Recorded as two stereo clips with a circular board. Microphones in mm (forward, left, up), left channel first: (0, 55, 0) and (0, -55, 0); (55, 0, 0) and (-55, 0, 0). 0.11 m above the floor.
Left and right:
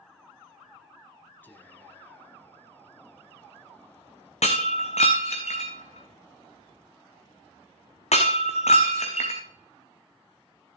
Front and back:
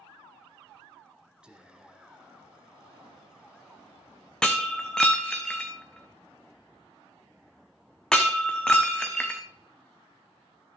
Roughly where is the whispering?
Behind left.